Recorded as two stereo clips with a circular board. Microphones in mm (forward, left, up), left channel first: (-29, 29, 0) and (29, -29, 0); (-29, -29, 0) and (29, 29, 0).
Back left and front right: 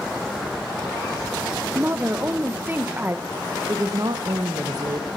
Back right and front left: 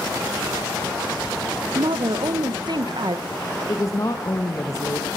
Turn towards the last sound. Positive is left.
turn(degrees=-85)